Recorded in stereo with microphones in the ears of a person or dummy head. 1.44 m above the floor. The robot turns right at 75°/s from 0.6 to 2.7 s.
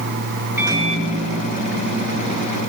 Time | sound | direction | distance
0.6 | a microwave | 160° right | 1.4 m